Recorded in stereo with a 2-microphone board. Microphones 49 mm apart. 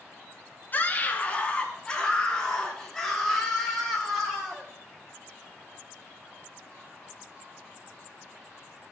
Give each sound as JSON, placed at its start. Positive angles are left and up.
{"t": 0.7, "sound": "a scream", "side_deg": 35, "distance_m": 2.5}